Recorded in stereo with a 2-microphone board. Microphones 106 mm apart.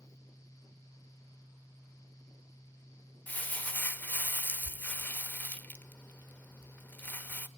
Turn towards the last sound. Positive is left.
turn(degrees=15)  # may be behind; listen again after turning